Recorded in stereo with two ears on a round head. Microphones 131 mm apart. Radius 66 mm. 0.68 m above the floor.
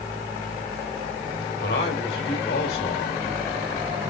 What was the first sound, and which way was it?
A man speaking, 75° left (ahead or behind).